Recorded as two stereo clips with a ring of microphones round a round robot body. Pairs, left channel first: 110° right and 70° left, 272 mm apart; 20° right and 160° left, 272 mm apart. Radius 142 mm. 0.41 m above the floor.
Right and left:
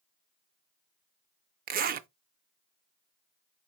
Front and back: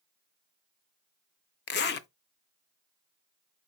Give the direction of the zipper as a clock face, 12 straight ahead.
11 o'clock.